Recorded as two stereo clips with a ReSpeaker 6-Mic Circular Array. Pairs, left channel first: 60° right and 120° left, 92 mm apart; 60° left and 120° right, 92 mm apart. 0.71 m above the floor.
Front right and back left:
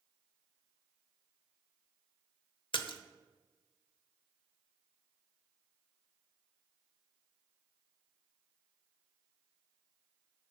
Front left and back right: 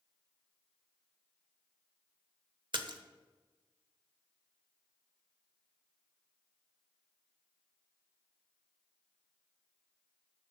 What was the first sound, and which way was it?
A splash, 85° right.